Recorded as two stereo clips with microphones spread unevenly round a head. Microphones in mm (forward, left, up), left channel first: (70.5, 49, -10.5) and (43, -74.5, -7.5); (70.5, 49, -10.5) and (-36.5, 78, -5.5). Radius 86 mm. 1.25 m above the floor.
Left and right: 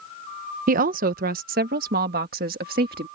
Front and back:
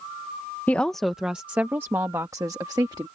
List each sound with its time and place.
0.7 s a woman speaking: 95° right; by 3.1 s 125° right